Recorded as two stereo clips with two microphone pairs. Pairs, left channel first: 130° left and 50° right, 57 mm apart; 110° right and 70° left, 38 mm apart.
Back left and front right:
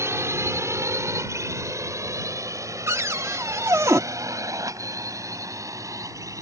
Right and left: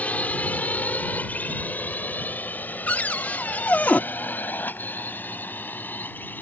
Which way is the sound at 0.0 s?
75° right.